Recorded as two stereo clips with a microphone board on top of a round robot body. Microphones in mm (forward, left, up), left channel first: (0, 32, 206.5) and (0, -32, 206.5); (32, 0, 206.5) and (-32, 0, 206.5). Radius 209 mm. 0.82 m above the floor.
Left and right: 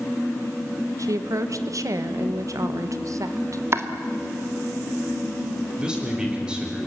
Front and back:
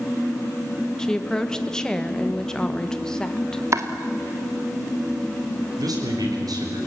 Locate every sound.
1.0 s a woman speaking: 80° right, 1.2 m
3.7 s chopping: 140° right, 1.5 m
5.8 s a man speaking: 170° right, 5.5 m